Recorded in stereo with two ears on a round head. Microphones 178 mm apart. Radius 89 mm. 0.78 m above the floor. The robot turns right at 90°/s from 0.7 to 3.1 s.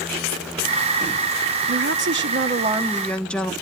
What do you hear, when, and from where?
1.7 s a woman speaking: 120° right, 1.0 m; by 3.5 s 5° left, 1.0 m